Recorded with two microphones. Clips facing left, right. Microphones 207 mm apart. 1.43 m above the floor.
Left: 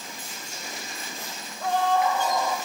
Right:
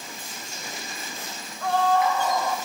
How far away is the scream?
About 5 m.